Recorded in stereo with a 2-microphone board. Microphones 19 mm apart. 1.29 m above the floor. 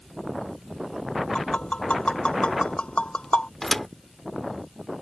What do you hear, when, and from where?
1.4 s tapping: 75° left (ahead or behind)
3.6 s a thud: 15° left (ahead or behind)